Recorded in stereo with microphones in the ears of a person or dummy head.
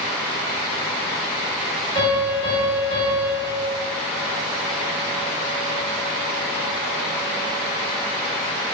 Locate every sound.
1.9 s a piano: 20° left (ahead or behind), 1.6 m